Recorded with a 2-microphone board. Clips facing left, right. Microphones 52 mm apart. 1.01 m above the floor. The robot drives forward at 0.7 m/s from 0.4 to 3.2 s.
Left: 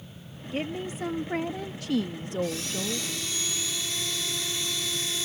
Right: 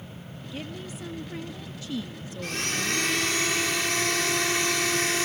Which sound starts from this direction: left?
A woman speaking, at 0.5 s.